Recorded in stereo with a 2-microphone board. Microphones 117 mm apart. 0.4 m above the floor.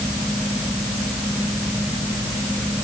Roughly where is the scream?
I don't hear a scream.